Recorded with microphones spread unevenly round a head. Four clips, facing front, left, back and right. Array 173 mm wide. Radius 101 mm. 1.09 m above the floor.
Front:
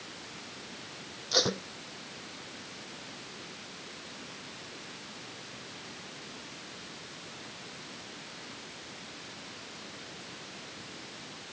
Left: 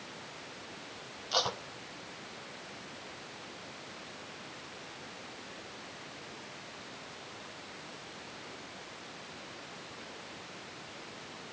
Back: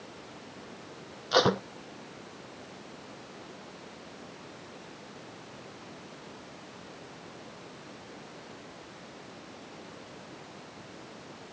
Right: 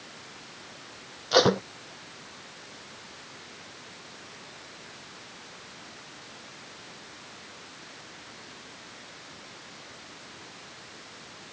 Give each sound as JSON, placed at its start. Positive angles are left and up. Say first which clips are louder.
{"t": 1.3, "sound": "tape being pulled", "louder": "right 13 dB, back 7 dB", "azimuth_deg": -105}